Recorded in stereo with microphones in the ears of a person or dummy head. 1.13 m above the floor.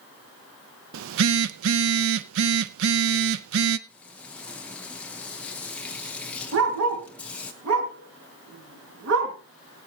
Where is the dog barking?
70° right (ahead or behind), 3.5 m.